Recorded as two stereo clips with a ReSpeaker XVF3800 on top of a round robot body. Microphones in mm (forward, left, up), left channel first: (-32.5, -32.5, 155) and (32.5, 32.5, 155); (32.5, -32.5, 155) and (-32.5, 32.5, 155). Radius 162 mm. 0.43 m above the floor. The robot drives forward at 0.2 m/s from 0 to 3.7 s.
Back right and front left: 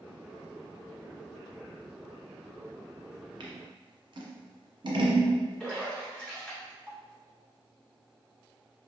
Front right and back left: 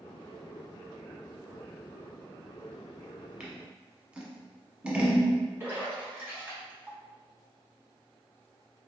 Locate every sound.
3.4 s scissors: 55° left, 1.1 m; by 5.3 s 60° left, 1.1 m
5.6 s a splash: 160° left, 1.2 m